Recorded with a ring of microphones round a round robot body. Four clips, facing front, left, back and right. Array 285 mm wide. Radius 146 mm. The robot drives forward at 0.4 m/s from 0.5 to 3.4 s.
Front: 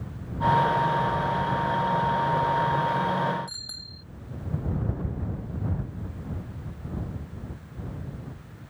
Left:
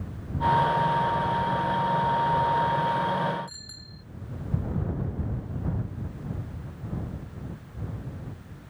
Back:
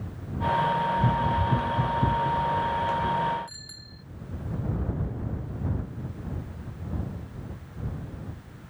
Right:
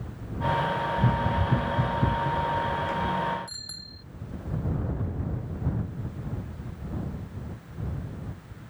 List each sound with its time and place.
1.0 s running footsteps: 130° right; by 3.4 s 140° right
3.5 s a bicycle bell: 30° right